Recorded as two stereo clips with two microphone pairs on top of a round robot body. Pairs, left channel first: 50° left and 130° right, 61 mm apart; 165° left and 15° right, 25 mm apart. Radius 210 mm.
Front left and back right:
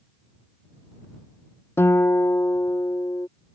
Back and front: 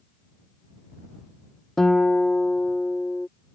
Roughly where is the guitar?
Left.